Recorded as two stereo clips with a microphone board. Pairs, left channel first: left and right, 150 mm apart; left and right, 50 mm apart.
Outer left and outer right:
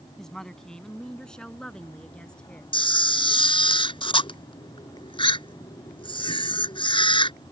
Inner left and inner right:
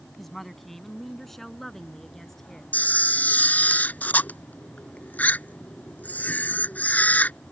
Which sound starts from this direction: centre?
A woman speaking, at 0.2 s.